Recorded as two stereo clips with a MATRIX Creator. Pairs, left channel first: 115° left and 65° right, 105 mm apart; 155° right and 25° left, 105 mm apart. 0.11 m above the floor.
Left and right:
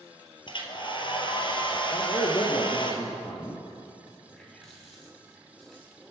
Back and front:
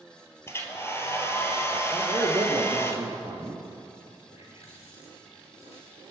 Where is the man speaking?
75° left, 3.5 m.